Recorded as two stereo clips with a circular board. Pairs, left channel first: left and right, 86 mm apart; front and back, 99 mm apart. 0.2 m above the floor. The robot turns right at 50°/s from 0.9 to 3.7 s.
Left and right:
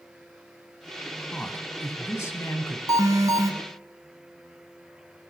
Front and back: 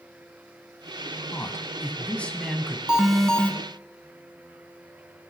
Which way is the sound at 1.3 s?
20° left.